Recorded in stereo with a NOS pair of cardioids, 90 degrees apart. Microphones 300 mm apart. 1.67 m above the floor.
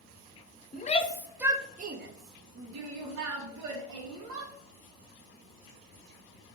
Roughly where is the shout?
Ahead left.